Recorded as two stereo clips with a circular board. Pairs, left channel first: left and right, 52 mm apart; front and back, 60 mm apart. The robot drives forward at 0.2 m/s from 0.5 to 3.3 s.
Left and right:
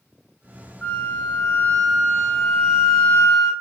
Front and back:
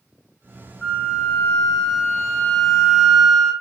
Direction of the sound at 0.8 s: 50° left.